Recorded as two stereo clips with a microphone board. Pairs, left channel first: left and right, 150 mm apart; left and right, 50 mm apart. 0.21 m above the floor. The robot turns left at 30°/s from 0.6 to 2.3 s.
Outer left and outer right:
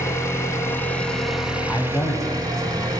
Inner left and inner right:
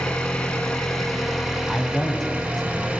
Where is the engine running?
20° left, 0.7 m; by 3.0 s 30° right, 0.7 m.